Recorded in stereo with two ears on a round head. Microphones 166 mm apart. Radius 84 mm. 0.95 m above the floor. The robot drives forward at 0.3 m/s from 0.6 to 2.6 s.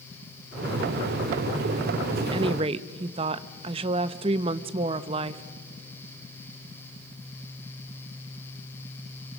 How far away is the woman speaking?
About 0.7 m.